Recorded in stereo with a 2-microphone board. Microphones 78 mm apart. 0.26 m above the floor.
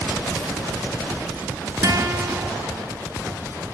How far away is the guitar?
About 0.8 m.